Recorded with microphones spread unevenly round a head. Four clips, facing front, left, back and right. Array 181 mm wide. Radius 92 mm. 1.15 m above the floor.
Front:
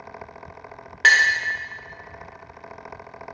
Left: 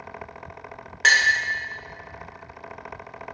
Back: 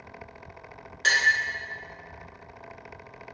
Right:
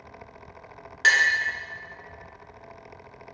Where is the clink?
20° left, 0.8 m.